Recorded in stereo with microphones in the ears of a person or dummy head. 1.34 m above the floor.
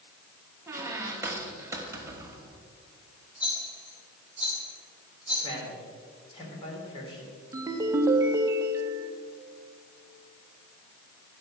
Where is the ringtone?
20° right (ahead or behind), 0.9 m.